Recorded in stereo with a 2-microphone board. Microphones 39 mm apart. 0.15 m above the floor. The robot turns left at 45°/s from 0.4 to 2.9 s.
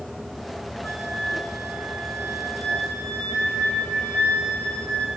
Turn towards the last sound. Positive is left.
turn(degrees=40)